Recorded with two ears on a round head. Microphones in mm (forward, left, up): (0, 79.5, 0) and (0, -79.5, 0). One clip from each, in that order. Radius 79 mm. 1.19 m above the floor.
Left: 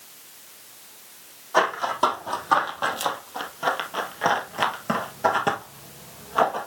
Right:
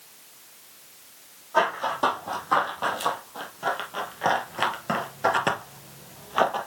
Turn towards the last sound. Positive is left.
turn(degrees=-35)  # may be behind; listen again after turning